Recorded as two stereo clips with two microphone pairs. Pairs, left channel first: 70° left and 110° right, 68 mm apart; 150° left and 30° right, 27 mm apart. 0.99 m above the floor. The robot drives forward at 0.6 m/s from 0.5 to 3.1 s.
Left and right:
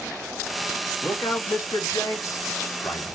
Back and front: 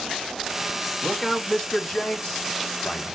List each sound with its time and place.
1.0 s a man speaking: 75° left, 1.9 m; by 3.0 s 115° left, 2 m